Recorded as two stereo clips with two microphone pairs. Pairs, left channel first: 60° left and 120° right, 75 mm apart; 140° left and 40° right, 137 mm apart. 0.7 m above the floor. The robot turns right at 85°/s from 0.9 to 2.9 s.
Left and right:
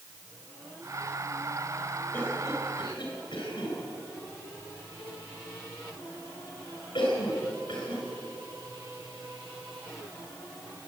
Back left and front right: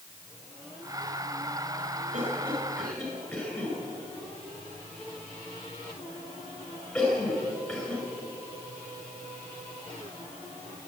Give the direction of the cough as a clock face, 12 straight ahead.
12 o'clock.